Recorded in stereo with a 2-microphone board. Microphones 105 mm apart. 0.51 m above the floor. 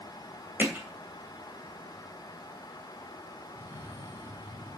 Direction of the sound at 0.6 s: 20° right (ahead or behind).